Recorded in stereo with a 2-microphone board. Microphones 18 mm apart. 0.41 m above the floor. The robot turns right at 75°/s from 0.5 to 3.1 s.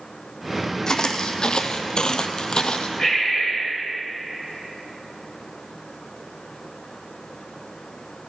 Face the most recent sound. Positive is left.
turn(degrees=45)  # may be behind; listen again after turning